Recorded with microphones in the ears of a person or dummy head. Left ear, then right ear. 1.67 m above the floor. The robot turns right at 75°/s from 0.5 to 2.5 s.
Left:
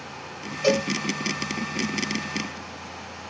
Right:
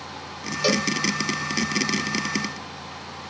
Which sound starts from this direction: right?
A cowbell, at 0.6 s.